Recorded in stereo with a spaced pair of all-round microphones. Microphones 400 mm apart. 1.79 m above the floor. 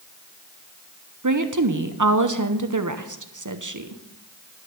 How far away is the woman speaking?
About 0.9 m.